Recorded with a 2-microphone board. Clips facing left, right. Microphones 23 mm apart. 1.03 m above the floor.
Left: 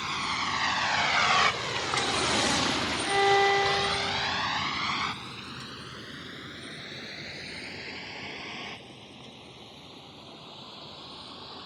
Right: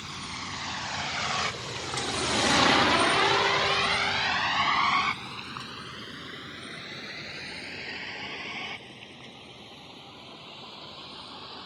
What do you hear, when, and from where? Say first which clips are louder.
0.0 s a vehicle: left 7 dB; 45° left (ahead or behind); by 11.7 s 55° right (ahead or behind)
3.1 s a violin: left 1 dB; 75° left (ahead or behind)